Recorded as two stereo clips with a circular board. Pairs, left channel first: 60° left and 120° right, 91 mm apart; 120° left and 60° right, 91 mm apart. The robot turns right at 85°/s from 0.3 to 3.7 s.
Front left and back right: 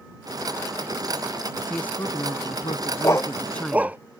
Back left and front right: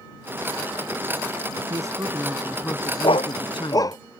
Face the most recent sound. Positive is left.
turn(degrees=165)